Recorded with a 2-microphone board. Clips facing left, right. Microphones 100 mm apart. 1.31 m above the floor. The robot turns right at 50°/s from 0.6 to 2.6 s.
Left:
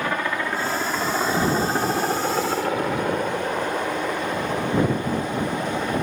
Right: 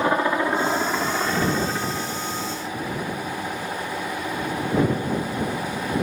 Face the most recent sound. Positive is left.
turn(degrees=80)